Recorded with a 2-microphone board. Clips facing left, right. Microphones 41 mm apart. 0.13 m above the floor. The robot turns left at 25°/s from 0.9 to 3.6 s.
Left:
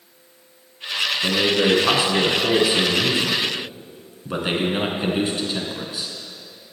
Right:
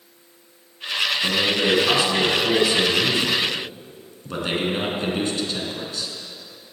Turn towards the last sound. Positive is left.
turn(degrees=15)  # may be behind; listen again after turning